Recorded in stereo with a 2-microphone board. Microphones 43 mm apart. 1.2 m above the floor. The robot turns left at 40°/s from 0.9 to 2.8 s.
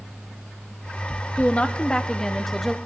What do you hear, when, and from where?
1.4 s a woman speaking: 55° left, 0.7 m; by 2.8 s straight ahead, 0.7 m